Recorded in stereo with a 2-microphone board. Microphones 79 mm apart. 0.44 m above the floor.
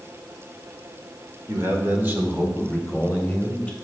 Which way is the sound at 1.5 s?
35° right (ahead or behind).